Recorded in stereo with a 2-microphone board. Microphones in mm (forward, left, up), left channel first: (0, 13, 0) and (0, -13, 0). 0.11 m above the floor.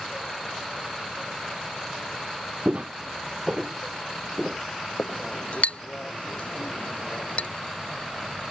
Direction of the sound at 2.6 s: 50° right (ahead or behind).